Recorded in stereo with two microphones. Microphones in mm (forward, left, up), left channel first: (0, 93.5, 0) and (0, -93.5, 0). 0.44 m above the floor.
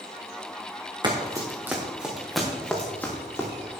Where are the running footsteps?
25° right (ahead or behind), 2 m; by 3.5 s 15° left (ahead or behind), 3.5 m.